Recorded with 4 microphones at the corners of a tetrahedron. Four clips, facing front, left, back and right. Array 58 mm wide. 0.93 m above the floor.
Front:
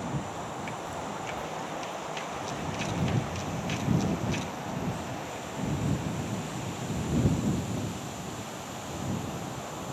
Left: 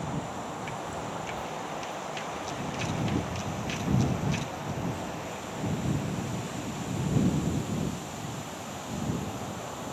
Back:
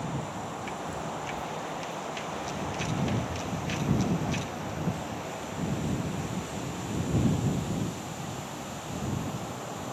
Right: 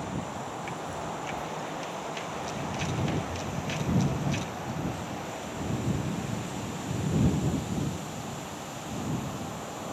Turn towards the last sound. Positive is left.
turn(degrees=-55)